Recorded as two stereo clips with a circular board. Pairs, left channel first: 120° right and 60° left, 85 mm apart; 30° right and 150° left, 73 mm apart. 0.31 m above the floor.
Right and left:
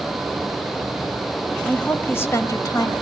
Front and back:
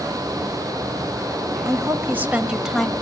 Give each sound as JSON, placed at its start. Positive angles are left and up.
{"t": 1.6, "sound": "a woman speaking", "azimuth_deg": 165, "distance_m": 1.2}